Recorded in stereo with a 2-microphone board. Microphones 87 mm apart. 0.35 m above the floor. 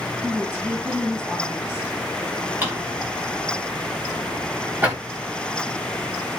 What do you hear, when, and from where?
0.2 s a woman speaking: 25° right (ahead or behind), 8.5 m
2.6 s a drawer: 25° right (ahead or behind), 9.5 m